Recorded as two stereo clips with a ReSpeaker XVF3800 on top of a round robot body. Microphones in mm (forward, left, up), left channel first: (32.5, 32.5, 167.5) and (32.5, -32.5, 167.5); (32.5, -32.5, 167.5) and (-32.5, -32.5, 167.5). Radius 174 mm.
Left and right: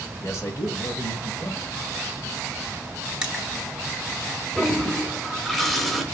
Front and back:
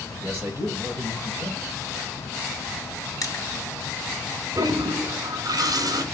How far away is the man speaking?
About 3 m.